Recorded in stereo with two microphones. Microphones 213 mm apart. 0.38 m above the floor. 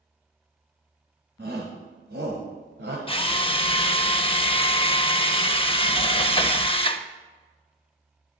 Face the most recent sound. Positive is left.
turn(degrees=25)  # may be behind; listen again after turning